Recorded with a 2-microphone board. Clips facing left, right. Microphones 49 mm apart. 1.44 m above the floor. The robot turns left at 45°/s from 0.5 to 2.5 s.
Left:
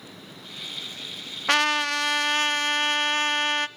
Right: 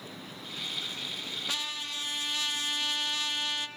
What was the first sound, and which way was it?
A trumpet, 105° left.